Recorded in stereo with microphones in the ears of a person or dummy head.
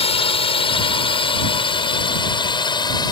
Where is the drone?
30° left (ahead or behind); by 3.1 s 20° left (ahead or behind).